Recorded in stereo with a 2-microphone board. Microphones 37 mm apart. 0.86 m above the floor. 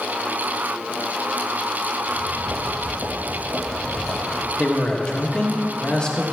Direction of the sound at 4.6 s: 25° left (ahead or behind).